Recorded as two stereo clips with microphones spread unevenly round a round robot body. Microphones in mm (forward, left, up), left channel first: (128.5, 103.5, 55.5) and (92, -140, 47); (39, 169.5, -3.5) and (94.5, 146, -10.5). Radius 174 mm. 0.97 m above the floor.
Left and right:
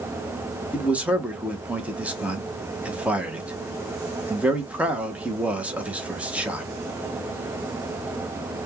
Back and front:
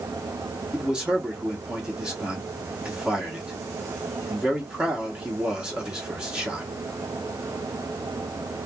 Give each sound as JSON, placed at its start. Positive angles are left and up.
{"t": 0.7, "sound": "a man speaking", "azimuth_deg": -30, "distance_m": 0.8}